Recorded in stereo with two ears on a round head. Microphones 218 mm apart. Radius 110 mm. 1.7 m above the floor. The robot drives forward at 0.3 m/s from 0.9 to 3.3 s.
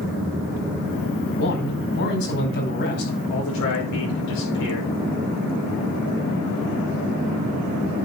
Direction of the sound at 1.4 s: 55° left (ahead or behind).